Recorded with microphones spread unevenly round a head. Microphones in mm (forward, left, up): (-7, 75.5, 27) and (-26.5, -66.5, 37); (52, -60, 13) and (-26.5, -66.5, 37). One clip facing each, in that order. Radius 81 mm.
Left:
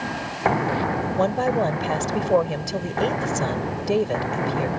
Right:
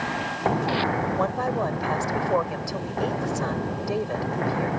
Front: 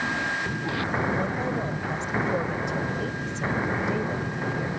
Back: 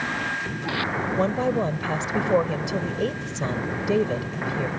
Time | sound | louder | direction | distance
1.2 | a woman speaking | left 4 dB, back 5 dB | 145° left | ?